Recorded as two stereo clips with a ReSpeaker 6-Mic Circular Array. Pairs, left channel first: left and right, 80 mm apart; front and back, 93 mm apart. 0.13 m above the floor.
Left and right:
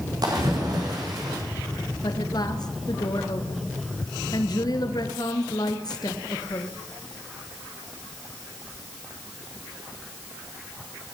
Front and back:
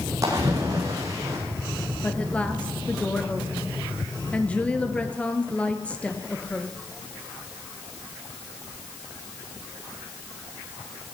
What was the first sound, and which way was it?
A splash, 125° right.